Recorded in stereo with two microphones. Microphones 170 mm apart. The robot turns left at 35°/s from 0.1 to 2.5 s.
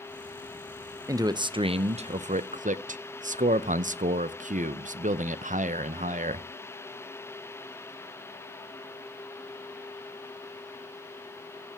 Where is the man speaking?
25° right, 0.5 m; by 6.5 s 75° right, 0.5 m.